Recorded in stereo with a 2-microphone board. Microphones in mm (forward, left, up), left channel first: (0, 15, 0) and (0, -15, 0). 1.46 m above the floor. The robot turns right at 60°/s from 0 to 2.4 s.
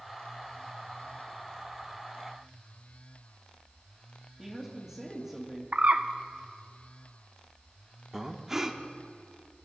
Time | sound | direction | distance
4.4 | a woman speaking | 5° right (ahead or behind) | 2 m
5.7 | a bird | 55° right (ahead or behind) | 0.7 m
8.1 | breathing | 10° right (ahead or behind) | 1.0 m